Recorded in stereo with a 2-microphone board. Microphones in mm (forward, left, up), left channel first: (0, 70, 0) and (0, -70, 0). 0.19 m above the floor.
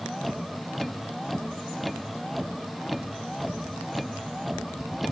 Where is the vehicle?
Centre (ahead or behind).